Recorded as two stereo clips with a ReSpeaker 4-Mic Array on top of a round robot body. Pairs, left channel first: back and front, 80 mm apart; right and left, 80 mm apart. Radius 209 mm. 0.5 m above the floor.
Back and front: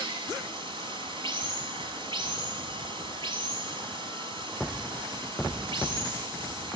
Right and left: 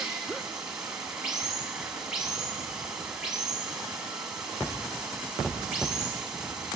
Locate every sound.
0.0 s running water: 5° left, 6 m